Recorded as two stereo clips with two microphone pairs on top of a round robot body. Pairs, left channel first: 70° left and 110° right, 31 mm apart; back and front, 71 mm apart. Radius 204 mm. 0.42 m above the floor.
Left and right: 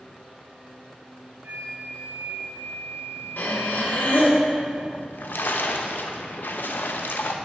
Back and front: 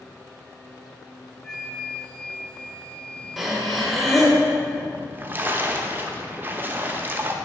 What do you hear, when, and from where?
1.4 s a flute: 105° right, 1.1 m
3.4 s breathing: 85° left, 1.1 m
4.9 s a splash: 60° left, 0.6 m